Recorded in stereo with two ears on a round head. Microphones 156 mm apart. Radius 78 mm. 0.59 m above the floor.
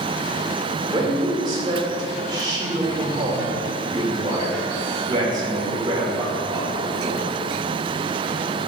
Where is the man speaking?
25° right (ahead or behind), 1.5 m.